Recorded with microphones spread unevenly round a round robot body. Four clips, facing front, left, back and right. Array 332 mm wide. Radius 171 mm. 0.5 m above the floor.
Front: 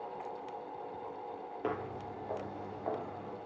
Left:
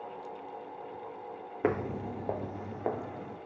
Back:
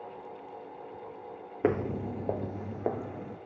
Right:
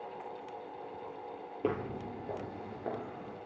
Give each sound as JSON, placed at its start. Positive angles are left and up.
{"t": 1.6, "sound": "footsteps", "azimuth_deg": 170, "distance_m": 0.6}